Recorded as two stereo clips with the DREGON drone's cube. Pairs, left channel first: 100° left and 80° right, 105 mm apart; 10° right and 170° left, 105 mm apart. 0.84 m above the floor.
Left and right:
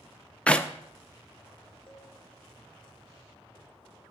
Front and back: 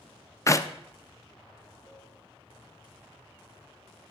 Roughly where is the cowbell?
Ahead.